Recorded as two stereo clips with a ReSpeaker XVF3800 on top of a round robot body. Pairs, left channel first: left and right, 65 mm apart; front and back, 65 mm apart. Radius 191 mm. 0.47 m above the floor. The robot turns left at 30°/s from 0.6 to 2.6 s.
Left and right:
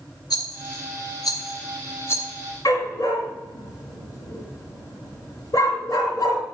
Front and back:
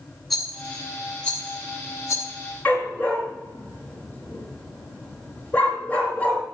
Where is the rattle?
85° left, 2.5 m; by 2.2 s 35° left, 2.5 m.